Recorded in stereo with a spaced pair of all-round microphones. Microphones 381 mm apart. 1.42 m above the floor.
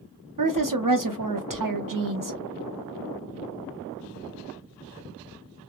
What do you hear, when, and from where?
0.4 s a woman speaking: 60° right (ahead or behind), 0.7 m